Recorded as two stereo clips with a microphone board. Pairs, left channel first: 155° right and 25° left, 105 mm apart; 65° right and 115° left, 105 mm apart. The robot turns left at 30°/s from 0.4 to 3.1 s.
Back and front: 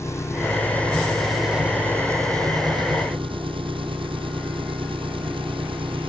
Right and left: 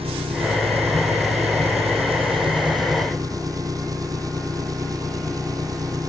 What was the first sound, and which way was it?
An engine running, 140° left.